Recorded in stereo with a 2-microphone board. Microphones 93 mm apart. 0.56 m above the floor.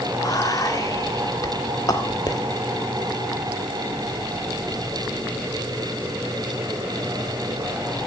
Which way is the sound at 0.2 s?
40° left (ahead or behind).